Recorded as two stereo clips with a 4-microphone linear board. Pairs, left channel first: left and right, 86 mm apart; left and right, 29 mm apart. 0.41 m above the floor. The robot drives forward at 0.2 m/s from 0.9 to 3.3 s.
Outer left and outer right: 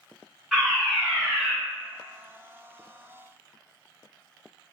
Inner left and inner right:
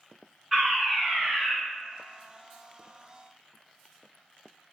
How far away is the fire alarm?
About 1.9 m.